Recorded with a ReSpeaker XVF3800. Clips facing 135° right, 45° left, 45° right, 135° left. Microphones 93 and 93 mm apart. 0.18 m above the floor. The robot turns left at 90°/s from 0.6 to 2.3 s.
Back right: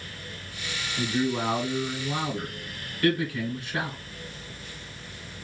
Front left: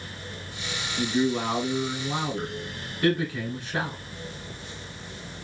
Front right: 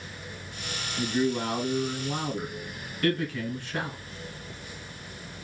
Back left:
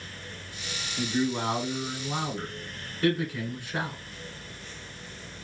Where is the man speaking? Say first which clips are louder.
Front left 2 dB, front right 1 dB; 170° right, 1.3 m; by 4.0 s 70° left, 1.3 m.